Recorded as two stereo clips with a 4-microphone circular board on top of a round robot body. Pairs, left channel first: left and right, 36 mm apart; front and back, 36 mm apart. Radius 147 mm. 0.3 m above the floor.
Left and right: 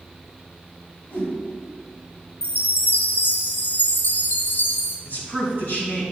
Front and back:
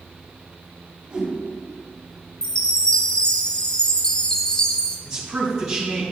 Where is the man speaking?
100° left, 3 m.